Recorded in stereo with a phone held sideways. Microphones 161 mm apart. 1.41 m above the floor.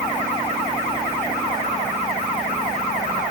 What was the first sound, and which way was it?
Only background noise.